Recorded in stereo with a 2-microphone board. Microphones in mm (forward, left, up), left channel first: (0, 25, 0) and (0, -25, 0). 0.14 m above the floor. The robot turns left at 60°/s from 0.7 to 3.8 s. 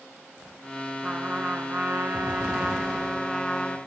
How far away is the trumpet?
About 0.8 m.